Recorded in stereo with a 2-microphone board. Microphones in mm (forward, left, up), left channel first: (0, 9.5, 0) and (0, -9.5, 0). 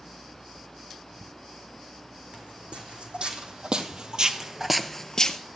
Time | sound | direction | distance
2.3 | footsteps | 75° right (ahead or behind) | 4 m